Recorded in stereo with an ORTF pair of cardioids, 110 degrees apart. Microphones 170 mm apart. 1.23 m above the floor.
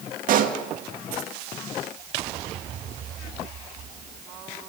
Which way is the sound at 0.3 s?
55° right.